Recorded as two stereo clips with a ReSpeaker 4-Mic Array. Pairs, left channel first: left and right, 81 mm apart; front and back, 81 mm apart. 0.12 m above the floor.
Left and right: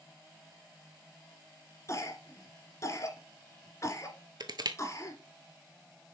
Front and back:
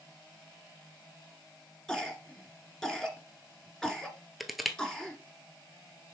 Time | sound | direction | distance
1.9 | a cough | 80° left | 2 m
4.4 | crushing | 90° right | 0.7 m